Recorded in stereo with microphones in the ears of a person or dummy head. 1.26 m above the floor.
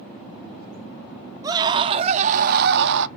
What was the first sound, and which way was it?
A scream, 15° right (ahead or behind).